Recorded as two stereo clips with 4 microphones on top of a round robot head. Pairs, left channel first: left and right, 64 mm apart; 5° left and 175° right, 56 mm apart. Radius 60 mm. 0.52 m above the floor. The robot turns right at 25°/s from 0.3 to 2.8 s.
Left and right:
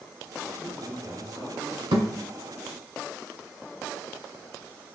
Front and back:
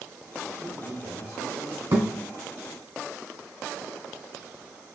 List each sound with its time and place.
0.6 s a man speaking: straight behind, 1.6 m; by 1.8 s 150° right, 1.6 m
1.9 s a thud: 125° right, 0.9 m